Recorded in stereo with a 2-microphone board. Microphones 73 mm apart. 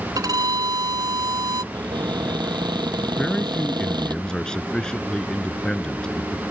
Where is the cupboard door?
80° right.